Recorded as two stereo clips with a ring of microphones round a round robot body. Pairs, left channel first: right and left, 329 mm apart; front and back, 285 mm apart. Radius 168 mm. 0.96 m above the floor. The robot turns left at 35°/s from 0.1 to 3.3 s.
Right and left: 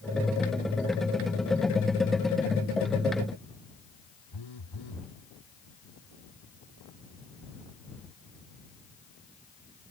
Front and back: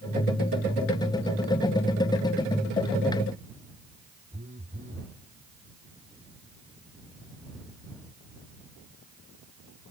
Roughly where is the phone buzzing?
Right.